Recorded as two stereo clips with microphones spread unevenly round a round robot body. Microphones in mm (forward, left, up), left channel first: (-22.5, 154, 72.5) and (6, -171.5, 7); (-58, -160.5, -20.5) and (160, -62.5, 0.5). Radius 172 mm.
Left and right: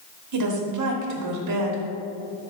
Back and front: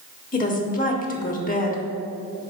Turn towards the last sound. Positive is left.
turn(degrees=-105)